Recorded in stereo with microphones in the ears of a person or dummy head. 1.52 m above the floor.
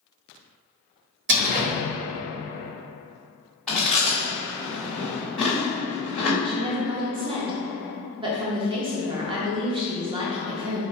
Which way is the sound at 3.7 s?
Centre (ahead or behind).